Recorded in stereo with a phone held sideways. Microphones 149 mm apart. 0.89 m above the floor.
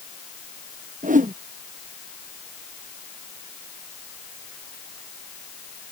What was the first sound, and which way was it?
A whoosh, 60° right (ahead or behind).